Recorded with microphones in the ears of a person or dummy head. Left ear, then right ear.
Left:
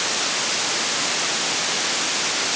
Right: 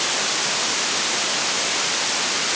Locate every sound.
Only background noise.